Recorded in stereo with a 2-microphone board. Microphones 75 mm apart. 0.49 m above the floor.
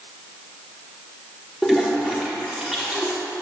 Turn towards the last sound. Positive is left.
turn(degrees=-5)  # may be behind; listen again after turning